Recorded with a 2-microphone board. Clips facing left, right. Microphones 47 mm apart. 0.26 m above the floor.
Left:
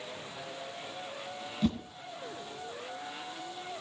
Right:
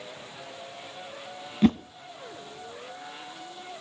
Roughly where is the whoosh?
Right.